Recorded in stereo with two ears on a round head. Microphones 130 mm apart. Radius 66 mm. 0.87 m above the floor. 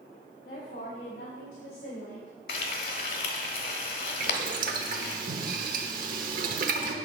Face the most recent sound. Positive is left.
turn(degrees=-60)  # may be behind; listen again after turning